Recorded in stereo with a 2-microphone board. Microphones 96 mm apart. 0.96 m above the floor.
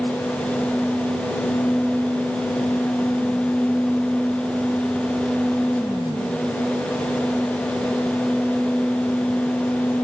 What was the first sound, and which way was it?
Only background noise.